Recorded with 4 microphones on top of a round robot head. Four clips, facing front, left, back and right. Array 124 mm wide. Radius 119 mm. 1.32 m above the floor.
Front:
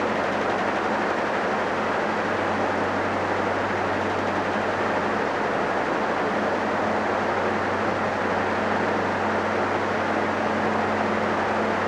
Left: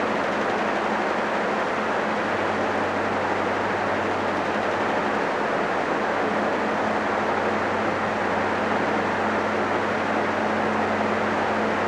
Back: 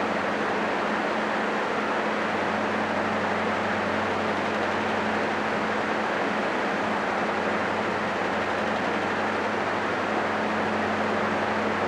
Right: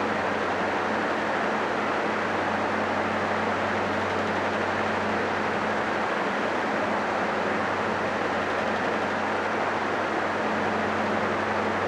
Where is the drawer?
No drawer in this recording.